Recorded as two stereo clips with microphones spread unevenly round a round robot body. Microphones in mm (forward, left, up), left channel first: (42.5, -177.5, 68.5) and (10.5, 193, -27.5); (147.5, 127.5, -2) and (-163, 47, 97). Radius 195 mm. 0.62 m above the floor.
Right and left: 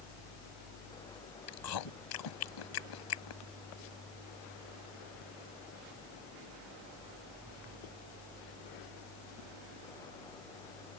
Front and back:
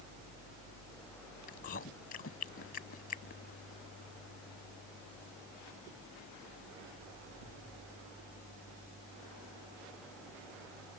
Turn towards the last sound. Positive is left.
turn(degrees=-50)